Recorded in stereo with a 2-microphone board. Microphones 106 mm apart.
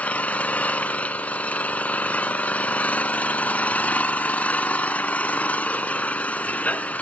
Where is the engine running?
10° left (ahead or behind), 0.7 m.